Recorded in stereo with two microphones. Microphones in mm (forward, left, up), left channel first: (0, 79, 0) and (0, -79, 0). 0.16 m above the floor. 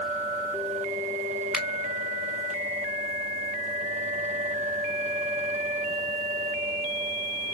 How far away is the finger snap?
About 0.8 m.